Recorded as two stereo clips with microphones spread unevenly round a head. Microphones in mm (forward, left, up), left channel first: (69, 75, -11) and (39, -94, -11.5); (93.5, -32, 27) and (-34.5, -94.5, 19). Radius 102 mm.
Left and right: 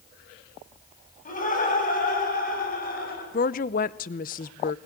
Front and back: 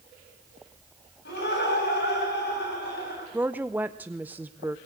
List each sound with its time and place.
1.2 s laughter: 40° left, 10 m; by 3.2 s 45° left, 10 m
3.3 s a woman speaking: 125° left, 0.6 m